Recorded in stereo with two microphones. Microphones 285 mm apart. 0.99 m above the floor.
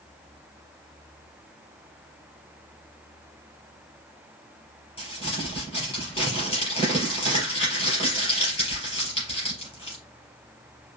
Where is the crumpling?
20° left (ahead or behind), 4 m.